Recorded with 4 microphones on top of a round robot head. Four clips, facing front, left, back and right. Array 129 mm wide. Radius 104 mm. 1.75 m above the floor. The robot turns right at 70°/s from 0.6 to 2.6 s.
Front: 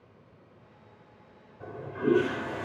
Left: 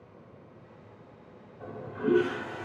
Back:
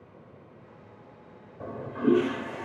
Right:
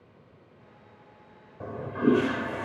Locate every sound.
1.6 s a toilet flushing: 135° right, 0.8 m; by 2.6 s 65° right, 0.8 m